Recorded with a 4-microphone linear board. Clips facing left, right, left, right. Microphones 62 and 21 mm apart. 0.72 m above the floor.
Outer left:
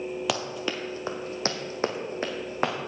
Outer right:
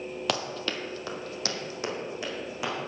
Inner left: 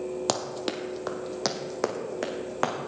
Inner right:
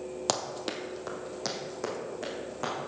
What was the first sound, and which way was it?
Running footsteps, centre (ahead or behind).